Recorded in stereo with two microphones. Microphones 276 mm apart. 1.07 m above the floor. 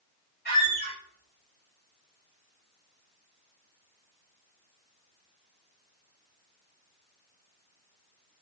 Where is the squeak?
35° left (ahead or behind), 2 m.